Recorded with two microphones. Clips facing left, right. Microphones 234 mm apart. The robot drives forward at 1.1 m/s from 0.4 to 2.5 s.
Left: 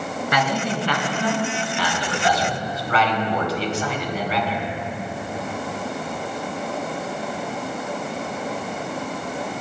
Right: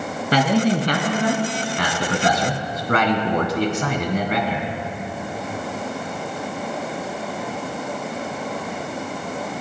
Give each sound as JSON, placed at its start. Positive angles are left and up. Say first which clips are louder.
{"t": 0.3, "sound": "a man speaking", "louder": "right 8 dB", "side_deg": -35, "distance_m": 3.0}